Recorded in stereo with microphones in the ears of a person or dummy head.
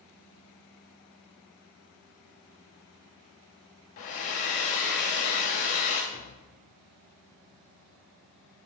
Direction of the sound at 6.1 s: 75° left (ahead or behind).